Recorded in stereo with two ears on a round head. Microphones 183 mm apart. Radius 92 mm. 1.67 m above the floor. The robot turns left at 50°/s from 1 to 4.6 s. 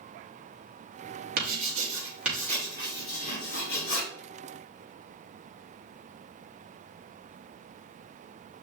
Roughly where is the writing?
Right.